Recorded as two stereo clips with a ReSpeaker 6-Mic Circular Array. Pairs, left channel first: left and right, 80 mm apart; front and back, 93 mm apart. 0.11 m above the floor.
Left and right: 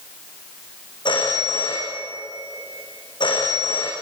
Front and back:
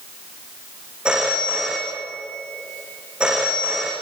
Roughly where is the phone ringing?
Left.